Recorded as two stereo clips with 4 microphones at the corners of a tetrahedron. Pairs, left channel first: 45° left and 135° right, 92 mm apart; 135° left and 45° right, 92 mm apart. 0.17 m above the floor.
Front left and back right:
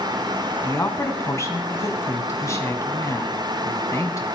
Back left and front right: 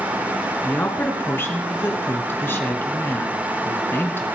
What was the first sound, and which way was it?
A woman speaking, 80° left.